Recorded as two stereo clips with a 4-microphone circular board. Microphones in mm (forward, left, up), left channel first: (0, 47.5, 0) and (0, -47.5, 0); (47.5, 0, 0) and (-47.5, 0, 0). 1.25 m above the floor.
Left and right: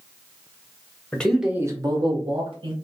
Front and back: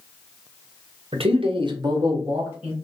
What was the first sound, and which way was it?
A man speaking, 165° left.